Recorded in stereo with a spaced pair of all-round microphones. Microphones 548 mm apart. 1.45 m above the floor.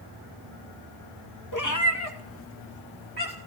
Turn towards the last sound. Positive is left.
turn(degrees=15)  # may be behind; listen again after turning